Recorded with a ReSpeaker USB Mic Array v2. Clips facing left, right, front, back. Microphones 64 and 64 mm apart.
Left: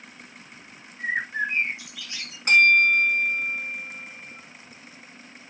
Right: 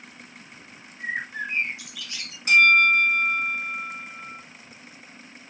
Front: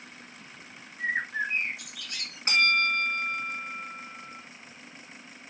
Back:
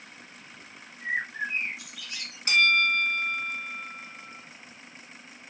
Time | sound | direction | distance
1.0 | a bird | 30° left | 2 m
2.5 | a bell | 55° left | 3 m